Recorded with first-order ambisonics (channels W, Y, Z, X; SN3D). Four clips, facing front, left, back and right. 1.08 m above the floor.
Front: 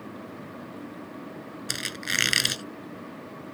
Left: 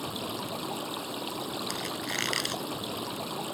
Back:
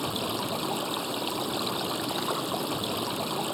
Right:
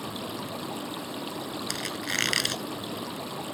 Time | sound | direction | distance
0.0 | running water | 175° left | ?
1.7 | a squeak | 15° right | ?